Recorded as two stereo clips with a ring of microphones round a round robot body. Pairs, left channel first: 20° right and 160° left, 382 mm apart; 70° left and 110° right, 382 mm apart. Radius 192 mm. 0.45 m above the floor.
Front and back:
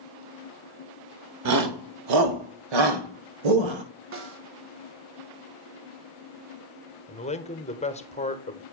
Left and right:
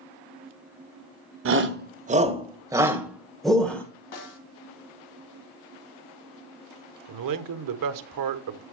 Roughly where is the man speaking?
Right.